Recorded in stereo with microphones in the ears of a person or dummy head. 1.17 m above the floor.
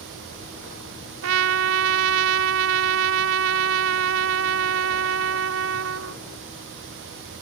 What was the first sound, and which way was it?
A trumpet, 75° right (ahead or behind).